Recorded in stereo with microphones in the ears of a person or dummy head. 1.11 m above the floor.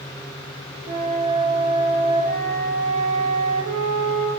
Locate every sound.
0.9 s a flute: 55° right (ahead or behind), 3 m